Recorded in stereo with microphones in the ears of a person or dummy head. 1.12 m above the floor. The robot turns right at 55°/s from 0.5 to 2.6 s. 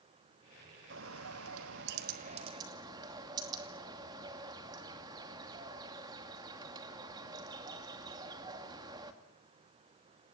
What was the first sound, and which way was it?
A bird, 120° right.